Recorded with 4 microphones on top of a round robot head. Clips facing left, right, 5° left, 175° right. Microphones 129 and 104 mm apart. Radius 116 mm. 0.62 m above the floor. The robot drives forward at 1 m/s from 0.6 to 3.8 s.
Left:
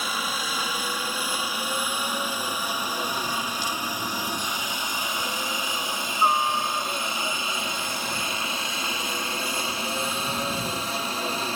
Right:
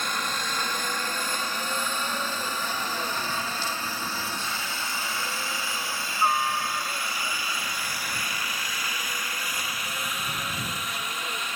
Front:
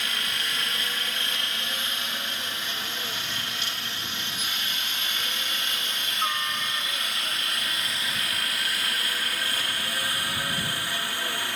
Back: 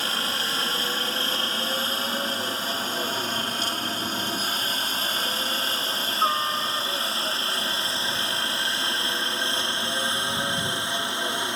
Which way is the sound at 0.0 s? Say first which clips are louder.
Left 1 dB, back 4 dB; 170° left.